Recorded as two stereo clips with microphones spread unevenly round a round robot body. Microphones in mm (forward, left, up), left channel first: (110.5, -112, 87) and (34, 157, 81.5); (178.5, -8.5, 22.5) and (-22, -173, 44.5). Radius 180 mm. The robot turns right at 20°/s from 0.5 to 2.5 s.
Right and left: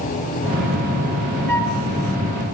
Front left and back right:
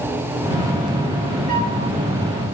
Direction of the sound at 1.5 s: 100° left.